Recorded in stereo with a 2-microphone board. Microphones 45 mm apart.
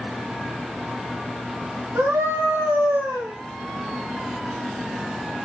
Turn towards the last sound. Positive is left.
turn(degrees=-65)  # may be behind; listen again after turning